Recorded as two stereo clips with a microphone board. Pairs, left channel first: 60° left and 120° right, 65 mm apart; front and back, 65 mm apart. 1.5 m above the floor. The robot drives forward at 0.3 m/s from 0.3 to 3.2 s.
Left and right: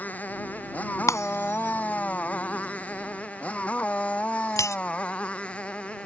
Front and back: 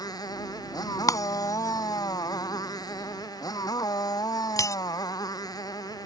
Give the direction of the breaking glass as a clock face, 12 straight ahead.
11 o'clock.